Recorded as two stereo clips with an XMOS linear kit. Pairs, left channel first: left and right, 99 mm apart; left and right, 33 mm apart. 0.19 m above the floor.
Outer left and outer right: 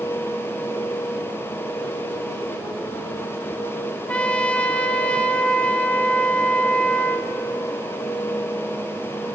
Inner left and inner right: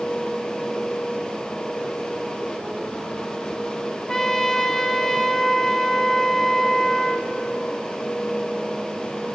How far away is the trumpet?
About 1.1 m.